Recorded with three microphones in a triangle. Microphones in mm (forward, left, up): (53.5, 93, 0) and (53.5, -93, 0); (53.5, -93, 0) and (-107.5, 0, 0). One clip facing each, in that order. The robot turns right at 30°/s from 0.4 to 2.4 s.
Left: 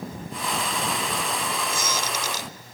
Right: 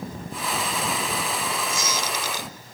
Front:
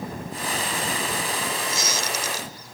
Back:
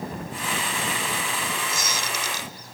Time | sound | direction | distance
1.7 | a squeak | 115° left | 0.7 m